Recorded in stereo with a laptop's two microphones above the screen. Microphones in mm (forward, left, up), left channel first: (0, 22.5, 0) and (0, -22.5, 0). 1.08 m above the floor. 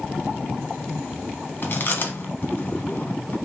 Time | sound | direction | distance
1.6 | chewing | 40° left (ahead or behind) | 0.9 m